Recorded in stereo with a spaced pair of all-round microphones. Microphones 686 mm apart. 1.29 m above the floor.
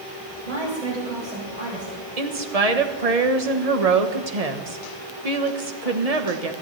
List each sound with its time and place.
0.4 s a woman speaking: 75° right (ahead or behind), 8 m
2.2 s a woman speaking: 60° right (ahead or behind), 1.3 m